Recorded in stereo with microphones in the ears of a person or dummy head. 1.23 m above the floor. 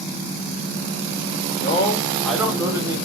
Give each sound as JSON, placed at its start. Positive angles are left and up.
{"t": 1.6, "sound": "a man speaking", "side_deg": 40, "distance_m": 0.5}